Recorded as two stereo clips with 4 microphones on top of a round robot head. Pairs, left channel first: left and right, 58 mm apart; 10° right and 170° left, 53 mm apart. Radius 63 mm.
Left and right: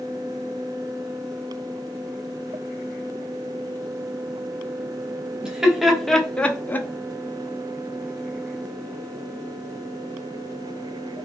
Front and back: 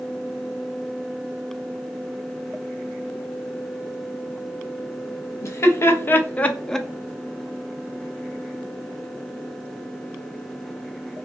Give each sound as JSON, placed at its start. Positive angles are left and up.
{"t": 5.4, "sound": "laughter", "azimuth_deg": -15, "distance_m": 0.8}